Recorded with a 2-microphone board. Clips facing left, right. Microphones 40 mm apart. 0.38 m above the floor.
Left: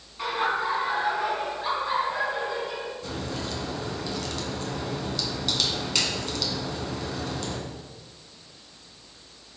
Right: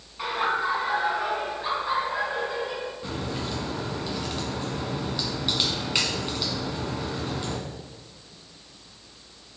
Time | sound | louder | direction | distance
0.2 | laughter | even | 10° right (ahead or behind) | 3.5 m
3.0 | a crack | right 1 dB | 20° right (ahead or behind) | 1.9 m